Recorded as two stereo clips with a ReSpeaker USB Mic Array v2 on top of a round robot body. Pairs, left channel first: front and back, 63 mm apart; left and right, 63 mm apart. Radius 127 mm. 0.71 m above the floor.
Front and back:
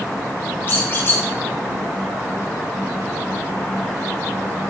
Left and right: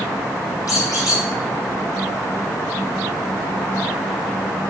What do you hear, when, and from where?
0.7 s a squeak: 60° left, 2.5 m